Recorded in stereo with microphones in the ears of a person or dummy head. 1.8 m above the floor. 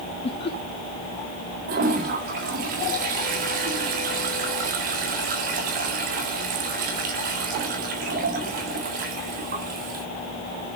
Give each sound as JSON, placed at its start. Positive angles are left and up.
{"t": 0.2, "sound": "laughter", "side_deg": 35, "distance_m": 2.0}
{"t": 1.7, "sound": "a toilet flushing", "side_deg": -45, "distance_m": 1.7}